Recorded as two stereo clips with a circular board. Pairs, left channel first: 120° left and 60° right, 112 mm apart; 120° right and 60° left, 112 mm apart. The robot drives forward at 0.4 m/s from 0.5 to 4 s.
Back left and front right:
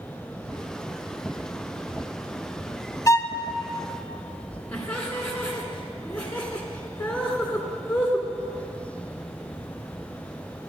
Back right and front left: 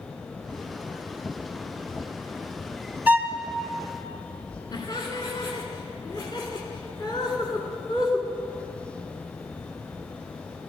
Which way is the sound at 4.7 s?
165° right.